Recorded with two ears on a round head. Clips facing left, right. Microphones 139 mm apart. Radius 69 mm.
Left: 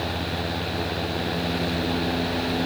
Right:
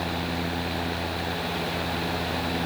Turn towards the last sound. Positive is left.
No sound to turn to.